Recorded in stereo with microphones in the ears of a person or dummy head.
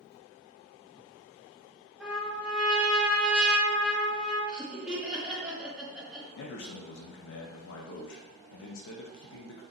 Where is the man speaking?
70° left (ahead or behind), 0.5 m.